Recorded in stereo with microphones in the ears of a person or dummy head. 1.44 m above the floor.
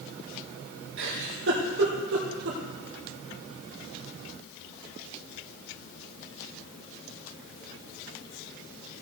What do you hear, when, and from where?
1.0 s a giggle: 70° right (ahead or behind), 2 m